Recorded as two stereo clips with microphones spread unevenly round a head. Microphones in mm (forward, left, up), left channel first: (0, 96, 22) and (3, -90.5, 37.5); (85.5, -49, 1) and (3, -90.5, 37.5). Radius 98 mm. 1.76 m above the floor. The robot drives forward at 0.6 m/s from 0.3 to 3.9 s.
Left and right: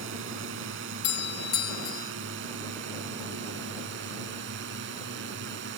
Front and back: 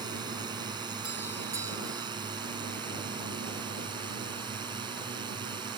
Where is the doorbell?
125° left; by 2.1 s 140° left.